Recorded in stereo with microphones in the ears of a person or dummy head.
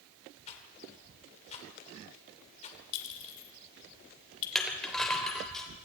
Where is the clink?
65° left (ahead or behind), 3 m.